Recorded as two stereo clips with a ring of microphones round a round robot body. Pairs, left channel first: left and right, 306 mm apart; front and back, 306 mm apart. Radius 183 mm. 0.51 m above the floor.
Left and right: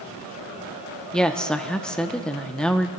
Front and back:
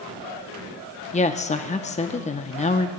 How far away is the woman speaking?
About 0.7 m.